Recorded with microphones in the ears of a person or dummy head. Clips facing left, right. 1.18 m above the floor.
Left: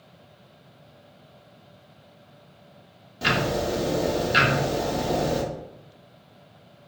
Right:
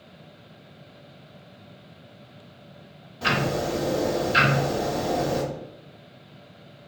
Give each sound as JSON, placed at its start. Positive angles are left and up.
{"t": 3.2, "sound": "ticking", "side_deg": 20, "distance_m": 0.8}